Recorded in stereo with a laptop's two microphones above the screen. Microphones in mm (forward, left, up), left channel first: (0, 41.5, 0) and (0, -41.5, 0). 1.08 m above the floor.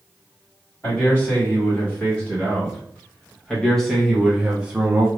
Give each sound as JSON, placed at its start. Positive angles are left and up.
{"t": 0.8, "sound": "a man speaking", "side_deg": 25, "distance_m": 2.5}